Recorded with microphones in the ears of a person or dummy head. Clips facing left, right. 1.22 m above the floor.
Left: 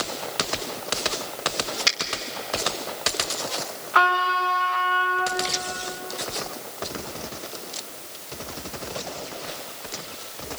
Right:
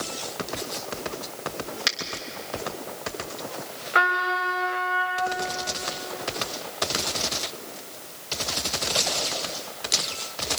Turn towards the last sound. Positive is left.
turn(degrees=-30)  # may be behind; listen again after turning